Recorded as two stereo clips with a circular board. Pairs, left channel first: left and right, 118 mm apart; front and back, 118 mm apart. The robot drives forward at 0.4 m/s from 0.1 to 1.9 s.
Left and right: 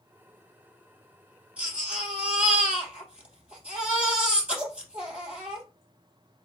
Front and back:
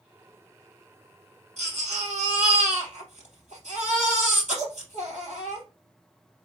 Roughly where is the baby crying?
Behind.